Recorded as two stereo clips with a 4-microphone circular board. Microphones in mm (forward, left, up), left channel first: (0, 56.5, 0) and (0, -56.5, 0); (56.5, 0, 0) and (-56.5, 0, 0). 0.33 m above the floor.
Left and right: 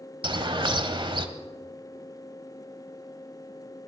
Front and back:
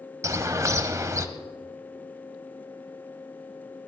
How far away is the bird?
About 1.0 m.